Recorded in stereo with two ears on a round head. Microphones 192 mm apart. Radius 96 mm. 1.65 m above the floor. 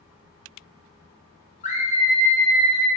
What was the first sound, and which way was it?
A scream, 30° left (ahead or behind).